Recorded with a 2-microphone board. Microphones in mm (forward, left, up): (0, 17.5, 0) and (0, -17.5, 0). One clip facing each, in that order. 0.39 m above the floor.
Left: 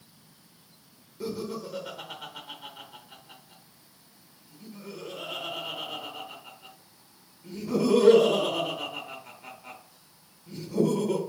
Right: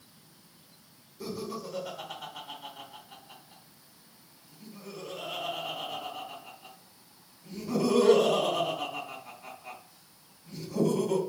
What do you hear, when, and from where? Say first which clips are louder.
1.2 s laughter: left 3 dB; 20° left (ahead or behind), 0.9 m